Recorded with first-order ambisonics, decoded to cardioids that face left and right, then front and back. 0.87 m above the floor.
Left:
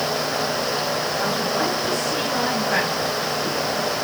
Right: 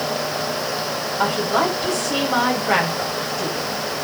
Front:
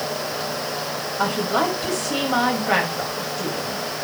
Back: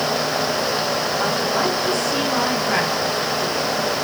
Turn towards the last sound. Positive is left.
turn(degrees=-45)